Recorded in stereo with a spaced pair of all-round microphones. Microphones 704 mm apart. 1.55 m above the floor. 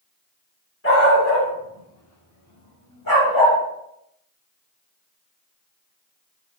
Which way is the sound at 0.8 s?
20° left (ahead or behind).